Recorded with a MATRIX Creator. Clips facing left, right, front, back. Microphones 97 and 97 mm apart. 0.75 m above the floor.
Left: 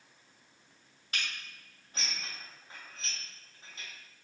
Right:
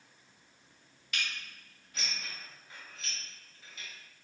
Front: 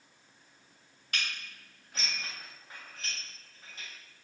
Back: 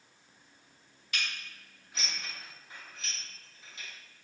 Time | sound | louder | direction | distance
1.1 | dishes clattering | even, even | 40° left | 3 m